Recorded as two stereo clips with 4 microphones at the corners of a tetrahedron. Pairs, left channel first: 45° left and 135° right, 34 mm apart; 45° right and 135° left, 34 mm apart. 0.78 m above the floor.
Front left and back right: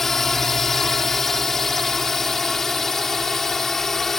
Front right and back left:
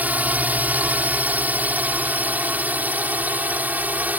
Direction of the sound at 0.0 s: 125° left.